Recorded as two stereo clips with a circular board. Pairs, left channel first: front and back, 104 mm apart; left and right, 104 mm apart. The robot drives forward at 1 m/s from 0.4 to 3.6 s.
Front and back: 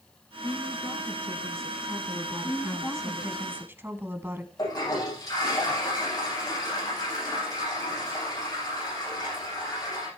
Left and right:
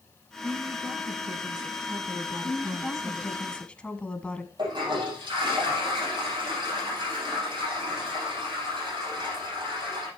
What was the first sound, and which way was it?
A woman speaking, 45° right.